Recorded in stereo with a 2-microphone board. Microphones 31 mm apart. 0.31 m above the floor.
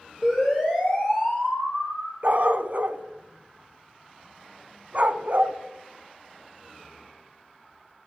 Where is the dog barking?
50° right (ahead or behind), 0.6 m.